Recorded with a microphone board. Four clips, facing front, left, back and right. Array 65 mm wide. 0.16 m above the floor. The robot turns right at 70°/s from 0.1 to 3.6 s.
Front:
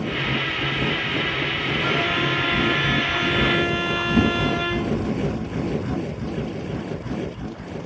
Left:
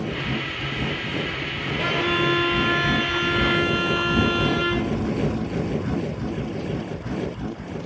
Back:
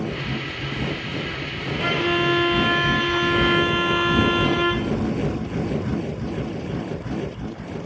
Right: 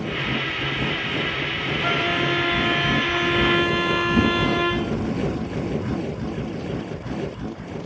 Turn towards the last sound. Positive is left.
turn(degrees=-25)